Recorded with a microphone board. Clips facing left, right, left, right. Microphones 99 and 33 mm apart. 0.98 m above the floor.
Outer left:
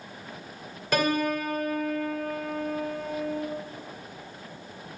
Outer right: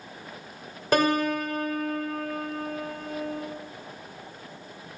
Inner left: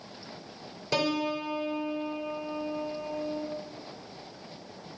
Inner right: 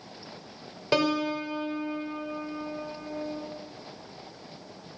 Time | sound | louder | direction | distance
0.9 | a piano | outer right 2 dB, inner right 3 dB | 35° right (ahead or behind) | 1.6 m